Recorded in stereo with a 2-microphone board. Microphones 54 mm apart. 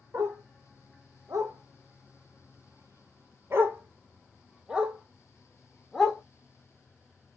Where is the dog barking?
65° right (ahead or behind), 2 m; by 6.2 s 5° left (ahead or behind), 1.9 m.